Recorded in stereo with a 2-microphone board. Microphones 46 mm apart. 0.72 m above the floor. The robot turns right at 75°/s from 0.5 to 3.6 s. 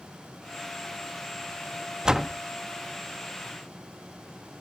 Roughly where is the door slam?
Centre.